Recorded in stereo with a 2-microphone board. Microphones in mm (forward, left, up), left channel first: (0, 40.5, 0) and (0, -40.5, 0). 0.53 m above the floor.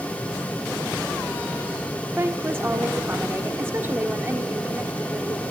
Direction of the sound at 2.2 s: 30° right (ahead or behind).